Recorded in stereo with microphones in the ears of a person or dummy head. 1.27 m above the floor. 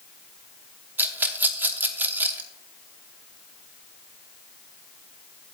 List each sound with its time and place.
1.0 s a rattle: 10° right (ahead or behind), 1.0 m